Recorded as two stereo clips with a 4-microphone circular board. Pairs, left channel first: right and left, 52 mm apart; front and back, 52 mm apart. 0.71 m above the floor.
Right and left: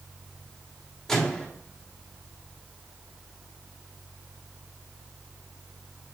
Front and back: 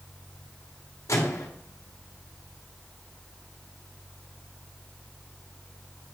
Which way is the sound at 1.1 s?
10° right.